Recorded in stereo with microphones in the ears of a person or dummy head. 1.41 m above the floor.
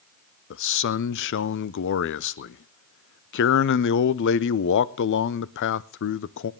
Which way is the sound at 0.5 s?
55° left (ahead or behind).